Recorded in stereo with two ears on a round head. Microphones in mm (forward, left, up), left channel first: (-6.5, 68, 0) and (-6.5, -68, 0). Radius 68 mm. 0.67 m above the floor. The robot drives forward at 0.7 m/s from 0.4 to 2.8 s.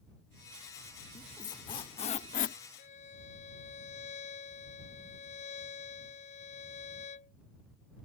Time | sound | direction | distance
1.1 | a squeak | 25° left (ahead or behind) | ?
2.8 | a violin | 45° left (ahead or behind) | ?